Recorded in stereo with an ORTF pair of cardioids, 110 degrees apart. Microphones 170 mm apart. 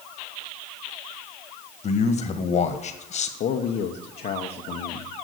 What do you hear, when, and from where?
1.8 s a man speaking: 45° left, 1.5 m
3.4 s a man speaking: 60° left, 1.0 m